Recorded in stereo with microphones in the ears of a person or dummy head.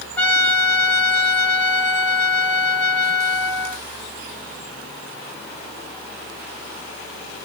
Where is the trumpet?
10° left (ahead or behind), 1.3 m.